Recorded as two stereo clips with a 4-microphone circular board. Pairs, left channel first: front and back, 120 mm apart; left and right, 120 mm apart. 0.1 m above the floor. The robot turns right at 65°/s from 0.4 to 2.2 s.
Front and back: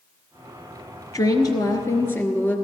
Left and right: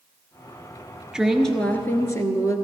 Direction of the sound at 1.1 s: 10° right.